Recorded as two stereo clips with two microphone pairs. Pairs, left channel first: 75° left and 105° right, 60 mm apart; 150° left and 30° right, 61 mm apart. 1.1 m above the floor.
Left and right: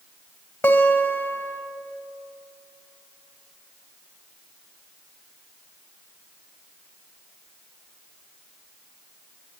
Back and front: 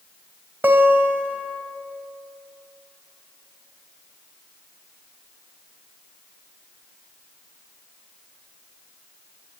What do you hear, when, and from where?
0.6 s a guitar: 15° left, 1.9 m